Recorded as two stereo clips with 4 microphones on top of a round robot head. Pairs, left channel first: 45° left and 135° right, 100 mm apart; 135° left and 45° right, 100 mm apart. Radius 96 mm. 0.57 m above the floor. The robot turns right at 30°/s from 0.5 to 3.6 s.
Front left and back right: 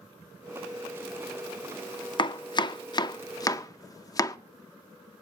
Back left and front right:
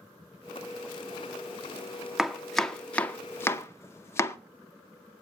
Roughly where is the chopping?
Ahead left.